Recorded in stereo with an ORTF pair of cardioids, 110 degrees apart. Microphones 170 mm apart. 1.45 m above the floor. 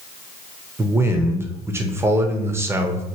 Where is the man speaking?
15° right, 0.7 m.